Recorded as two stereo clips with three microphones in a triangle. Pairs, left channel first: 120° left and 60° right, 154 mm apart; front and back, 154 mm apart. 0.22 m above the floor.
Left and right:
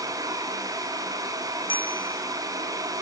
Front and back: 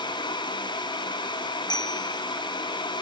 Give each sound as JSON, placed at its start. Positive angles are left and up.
{"t": 1.7, "sound": "a bicycle bell", "azimuth_deg": 60}